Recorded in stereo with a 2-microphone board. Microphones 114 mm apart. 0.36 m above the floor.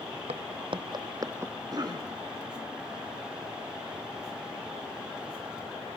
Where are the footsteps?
60° right (ahead or behind), 1.0 m; by 1.5 s 20° right (ahead or behind), 0.7 m.